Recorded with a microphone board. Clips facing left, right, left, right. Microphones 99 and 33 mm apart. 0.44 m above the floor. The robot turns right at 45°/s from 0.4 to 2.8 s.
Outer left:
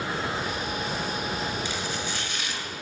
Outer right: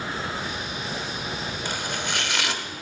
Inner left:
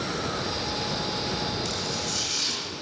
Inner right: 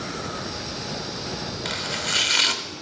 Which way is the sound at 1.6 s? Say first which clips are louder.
Outer right 1 dB, inner right 3 dB; 45° right (ahead or behind).